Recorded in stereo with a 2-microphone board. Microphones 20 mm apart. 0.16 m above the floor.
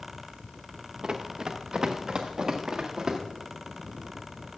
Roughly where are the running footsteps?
Right.